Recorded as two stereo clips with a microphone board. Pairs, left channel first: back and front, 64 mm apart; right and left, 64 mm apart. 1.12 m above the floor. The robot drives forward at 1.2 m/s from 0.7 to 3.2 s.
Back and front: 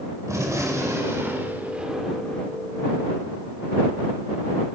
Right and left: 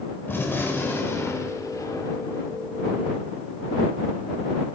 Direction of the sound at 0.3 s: 35° right.